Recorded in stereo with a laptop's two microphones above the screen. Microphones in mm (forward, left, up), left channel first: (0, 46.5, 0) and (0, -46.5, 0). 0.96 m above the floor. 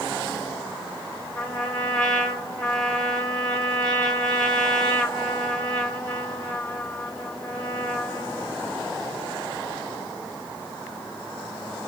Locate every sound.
1.4 s a trumpet: 5° left (ahead or behind), 3 m